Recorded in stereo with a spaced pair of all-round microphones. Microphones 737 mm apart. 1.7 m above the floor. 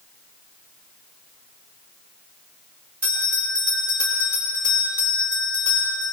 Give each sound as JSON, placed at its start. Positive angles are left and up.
{"t": 3.0, "sound": "a bell", "side_deg": -60, "distance_m": 4.0}